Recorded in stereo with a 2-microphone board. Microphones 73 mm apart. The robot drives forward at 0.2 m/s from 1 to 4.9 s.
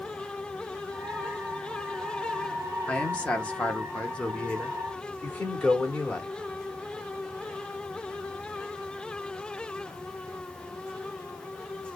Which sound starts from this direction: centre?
A man speaking, at 2.9 s.